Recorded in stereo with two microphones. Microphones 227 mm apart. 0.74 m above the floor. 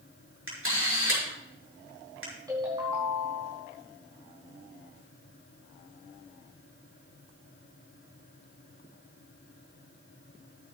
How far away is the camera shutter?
About 5 m.